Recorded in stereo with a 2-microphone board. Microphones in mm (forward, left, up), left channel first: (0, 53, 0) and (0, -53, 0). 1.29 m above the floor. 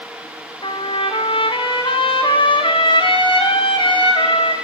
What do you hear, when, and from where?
0.6 s a trumpet: 50° left (ahead or behind), 1.8 m